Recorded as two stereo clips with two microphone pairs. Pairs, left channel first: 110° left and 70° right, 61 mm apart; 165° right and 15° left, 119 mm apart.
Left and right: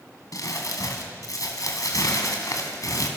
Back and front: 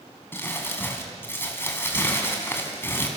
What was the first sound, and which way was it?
Crumpling, 125° left.